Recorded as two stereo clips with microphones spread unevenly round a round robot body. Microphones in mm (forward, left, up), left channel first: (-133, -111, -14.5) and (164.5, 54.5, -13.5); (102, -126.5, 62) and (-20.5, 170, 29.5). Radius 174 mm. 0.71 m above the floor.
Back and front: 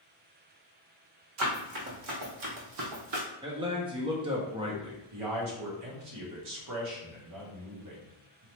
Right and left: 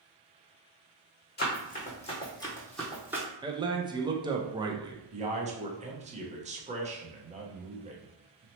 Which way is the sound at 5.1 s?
55° left.